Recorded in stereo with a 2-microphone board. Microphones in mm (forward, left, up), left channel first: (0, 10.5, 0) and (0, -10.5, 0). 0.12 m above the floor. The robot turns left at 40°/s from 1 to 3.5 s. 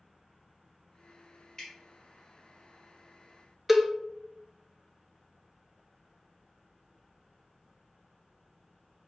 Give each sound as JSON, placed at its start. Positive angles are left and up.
{"t": 1.6, "sound": "dripping", "side_deg": 30, "distance_m": 2.0}
{"t": 3.7, "sound": "a cowbell", "side_deg": -10, "distance_m": 0.5}